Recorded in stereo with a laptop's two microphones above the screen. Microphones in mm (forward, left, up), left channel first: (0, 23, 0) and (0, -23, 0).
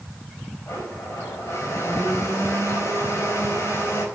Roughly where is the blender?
Left.